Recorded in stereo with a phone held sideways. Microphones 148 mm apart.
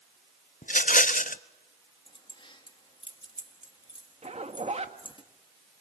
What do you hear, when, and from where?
0.6 s a rattle: 65° left (ahead or behind), 0.7 m
2.1 s keys jangling: 35° left (ahead or behind), 1.7 m
4.2 s a zipper: 45° right (ahead or behind), 1.5 m